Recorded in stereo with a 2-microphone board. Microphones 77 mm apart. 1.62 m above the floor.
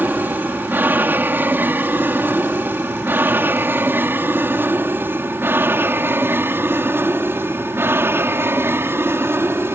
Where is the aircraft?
25° right (ahead or behind); by 9.8 s 30° right (ahead or behind).